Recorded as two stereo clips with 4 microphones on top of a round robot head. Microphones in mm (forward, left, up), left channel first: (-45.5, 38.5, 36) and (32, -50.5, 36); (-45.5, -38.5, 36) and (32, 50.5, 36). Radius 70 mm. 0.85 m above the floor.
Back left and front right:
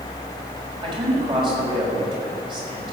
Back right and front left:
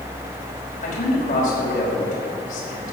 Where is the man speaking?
100° right, 5.5 m.